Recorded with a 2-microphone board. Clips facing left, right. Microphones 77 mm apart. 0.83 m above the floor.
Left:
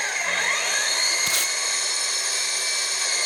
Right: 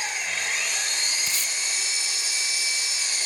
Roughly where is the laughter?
No laughter in this recording.